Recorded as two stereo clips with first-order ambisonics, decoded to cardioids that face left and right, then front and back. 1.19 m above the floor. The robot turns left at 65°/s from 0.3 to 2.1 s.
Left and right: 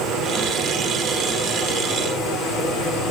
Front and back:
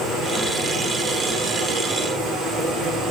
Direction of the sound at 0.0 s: 125° right.